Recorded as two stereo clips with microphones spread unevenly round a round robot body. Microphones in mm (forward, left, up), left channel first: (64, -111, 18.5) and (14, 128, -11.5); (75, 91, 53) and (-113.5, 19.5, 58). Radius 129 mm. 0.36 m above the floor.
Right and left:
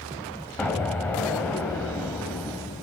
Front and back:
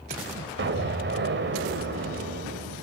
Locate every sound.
0.6 s an explosion: 165° right, 2 m